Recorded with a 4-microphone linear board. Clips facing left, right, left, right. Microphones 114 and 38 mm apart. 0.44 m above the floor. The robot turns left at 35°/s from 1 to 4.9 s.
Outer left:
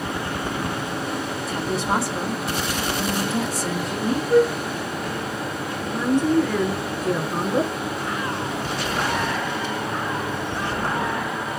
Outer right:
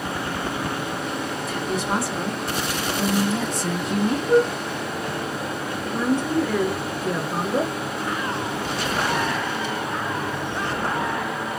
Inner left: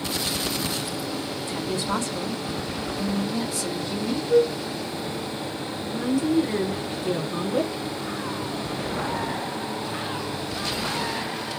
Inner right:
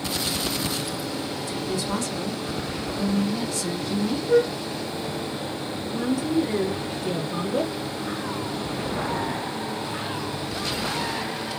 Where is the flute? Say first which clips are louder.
Outer left 1 dB, inner left 1 dB; 45° right (ahead or behind), 1.1 m; by 4.5 s 40° right (ahead or behind), 1.1 m.